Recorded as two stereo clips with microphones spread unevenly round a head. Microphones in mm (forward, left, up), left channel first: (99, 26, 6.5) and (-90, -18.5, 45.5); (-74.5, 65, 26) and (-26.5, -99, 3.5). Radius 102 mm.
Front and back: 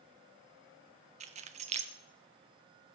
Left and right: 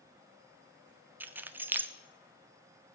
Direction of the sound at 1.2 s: 155° right.